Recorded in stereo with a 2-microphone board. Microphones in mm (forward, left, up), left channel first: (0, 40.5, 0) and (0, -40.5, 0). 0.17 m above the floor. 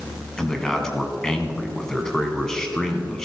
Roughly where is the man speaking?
Centre.